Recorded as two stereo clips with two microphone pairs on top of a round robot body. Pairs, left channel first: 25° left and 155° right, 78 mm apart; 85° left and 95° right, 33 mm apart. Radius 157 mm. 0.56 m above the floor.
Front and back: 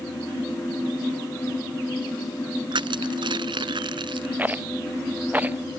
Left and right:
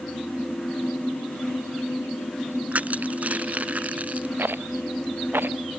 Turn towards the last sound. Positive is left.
turn(degrees=-85)